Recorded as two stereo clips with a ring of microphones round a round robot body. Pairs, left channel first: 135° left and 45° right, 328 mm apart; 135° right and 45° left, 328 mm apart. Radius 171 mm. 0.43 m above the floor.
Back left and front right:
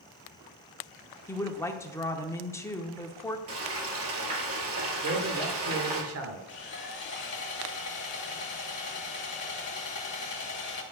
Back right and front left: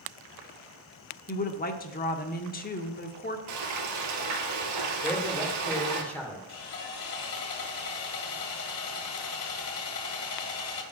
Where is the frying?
5° left, 2.0 m.